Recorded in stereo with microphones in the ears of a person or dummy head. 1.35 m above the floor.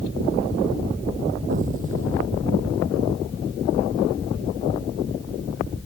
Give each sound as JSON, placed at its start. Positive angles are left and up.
{"t": 1.5, "sound": "an explosion", "side_deg": -45}